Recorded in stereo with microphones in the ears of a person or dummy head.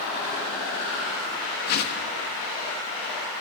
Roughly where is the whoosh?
Left.